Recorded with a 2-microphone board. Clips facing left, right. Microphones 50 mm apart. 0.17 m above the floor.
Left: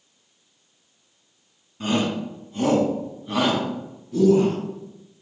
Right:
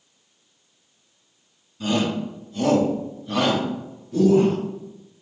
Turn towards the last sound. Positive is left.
turn(degrees=-5)  # may be behind; listen again after turning